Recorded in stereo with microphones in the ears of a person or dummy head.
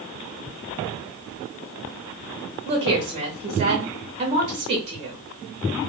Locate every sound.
2.6 s a woman speaking: 25° right (ahead or behind), 0.6 m